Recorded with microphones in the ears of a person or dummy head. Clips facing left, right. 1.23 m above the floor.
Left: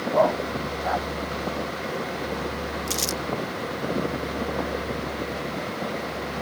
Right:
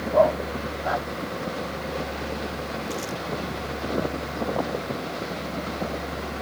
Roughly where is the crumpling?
Left.